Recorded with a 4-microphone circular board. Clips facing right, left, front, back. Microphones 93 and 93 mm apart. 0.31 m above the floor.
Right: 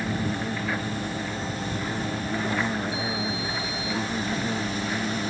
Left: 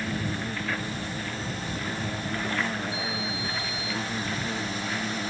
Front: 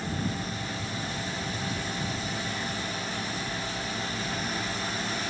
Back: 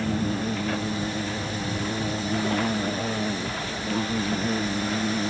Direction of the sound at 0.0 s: 170° right.